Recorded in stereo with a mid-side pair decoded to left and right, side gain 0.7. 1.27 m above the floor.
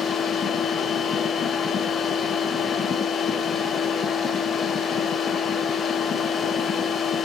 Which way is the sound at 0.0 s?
30° left.